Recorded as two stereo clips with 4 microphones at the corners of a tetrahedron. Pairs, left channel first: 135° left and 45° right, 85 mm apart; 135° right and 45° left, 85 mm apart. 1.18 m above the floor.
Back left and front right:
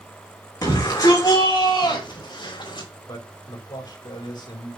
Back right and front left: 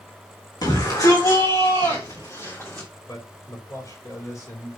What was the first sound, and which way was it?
A shout, straight behind.